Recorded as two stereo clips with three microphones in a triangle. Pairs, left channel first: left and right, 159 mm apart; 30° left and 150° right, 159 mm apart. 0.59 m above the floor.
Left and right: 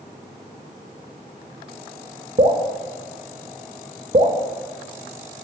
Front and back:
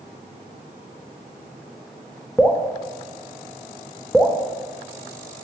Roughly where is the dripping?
Ahead right.